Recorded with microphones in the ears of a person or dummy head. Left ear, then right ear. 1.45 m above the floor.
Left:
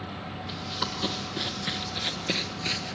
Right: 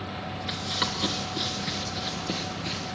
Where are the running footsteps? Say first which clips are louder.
Right 4 dB; 20° right (ahead or behind), 1.4 m; by 2.9 s 30° left (ahead or behind), 1.9 m.